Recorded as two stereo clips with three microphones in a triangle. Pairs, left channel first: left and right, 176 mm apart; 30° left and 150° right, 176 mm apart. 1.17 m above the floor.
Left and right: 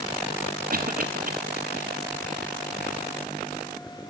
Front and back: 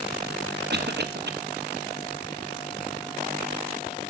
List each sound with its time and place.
0.7 s a cough: 130° right, 1.4 m